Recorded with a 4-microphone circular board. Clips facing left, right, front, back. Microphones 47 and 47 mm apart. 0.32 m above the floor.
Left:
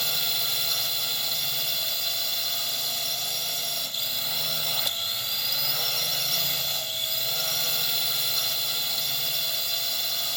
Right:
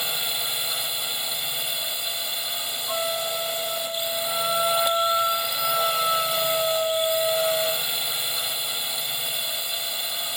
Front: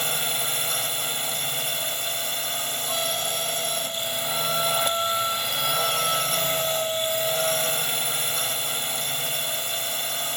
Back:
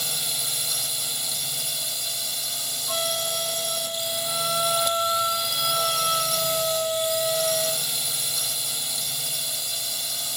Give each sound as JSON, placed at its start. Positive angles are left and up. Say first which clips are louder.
{"t": 0.0, "sound": "a drone", "louder": "right 1 dB, front 4 dB", "azimuth_deg": -25}
{"t": 2.9, "sound": "a flute", "louder": "right 7 dB, back 1 dB", "azimuth_deg": -100}